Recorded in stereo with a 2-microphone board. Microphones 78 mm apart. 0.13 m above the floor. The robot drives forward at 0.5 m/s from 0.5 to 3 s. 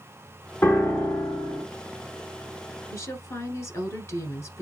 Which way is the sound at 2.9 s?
35° left (ahead or behind).